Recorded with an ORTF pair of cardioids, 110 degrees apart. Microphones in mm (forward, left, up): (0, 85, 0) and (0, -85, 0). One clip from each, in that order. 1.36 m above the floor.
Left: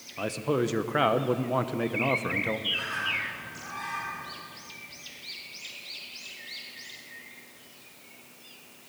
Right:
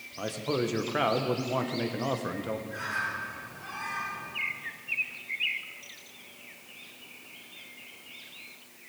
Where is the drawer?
I don't hear a drawer.